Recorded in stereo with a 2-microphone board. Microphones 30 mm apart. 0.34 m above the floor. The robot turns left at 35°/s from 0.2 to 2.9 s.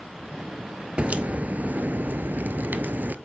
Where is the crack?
45° right, 1.1 m; by 3.1 s 110° right, 1.1 m.